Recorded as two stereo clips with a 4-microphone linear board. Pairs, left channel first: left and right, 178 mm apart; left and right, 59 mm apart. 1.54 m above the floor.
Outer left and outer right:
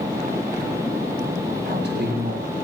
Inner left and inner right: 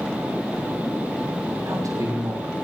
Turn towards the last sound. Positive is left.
turn(degrees=-75)  # may be behind; listen again after turning